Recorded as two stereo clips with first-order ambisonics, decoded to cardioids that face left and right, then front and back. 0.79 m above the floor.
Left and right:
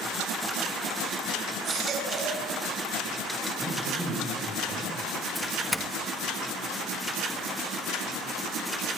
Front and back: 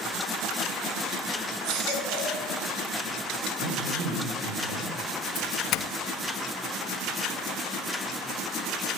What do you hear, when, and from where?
1.6 s a baby crying: 150° right, 6.5 m
3.6 s a man speaking: 175° left, 6 m
5.3 s a doorbell: 10° left, 1.3 m